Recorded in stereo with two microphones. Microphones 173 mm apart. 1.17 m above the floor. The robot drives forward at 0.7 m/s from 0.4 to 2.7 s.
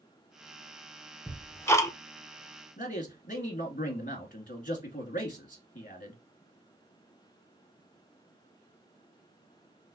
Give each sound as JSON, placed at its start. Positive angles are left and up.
{"t": 1.3, "sound": "ticking", "side_deg": 10, "distance_m": 1.0}
{"t": 2.8, "sound": "a man speaking", "side_deg": 45, "distance_m": 1.7}